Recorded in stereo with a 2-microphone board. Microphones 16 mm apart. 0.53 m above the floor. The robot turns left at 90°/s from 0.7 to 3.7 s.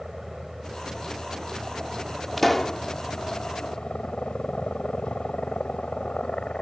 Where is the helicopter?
15° right (ahead or behind); by 6.6 s 60° left (ahead or behind).